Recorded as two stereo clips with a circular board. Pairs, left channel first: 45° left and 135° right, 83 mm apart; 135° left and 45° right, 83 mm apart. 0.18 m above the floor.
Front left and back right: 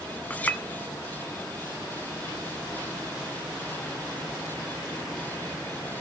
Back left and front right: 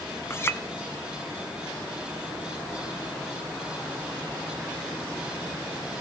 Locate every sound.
0.3 s a clink: 105° left, 0.7 m